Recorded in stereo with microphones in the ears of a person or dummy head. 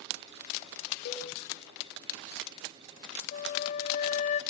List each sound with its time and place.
1.1 s a cowbell: 60° left (ahead or behind), 1.4 m
3.3 s a flute: 40° left (ahead or behind), 0.6 m